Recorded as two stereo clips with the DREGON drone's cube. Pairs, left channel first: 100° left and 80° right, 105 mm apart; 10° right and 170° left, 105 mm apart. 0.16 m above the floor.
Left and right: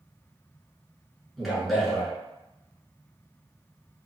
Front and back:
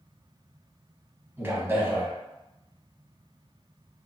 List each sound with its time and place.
1.4 s a man speaking: 165° right, 1.0 m